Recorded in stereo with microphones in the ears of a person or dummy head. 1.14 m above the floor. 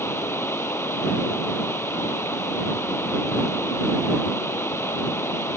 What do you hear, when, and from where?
0.0 s running water: 5° left (ahead or behind)